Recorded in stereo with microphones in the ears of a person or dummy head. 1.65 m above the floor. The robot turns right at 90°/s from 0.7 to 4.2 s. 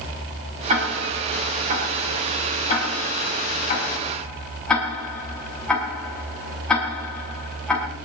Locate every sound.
0.7 s ticking: 40° right (ahead or behind), 5.5 m; by 7.9 s 5° left (ahead or behind), 5.5 m